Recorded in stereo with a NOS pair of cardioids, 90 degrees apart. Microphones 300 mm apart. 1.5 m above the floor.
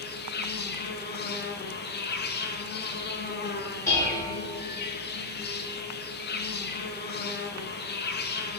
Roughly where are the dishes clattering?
Ahead.